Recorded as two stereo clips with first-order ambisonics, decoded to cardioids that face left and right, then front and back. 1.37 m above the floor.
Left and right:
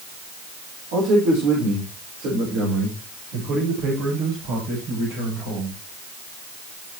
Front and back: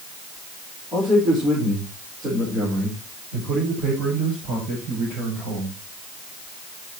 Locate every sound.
0.9 s a man speaking: 110° right, 5 m; by 5.8 s 105° right, 9 m